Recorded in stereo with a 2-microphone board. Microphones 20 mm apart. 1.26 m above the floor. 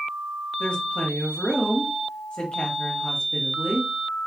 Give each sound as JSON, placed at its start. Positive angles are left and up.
{"t": 0.6, "sound": "a woman speaking", "side_deg": 70, "distance_m": 1.4}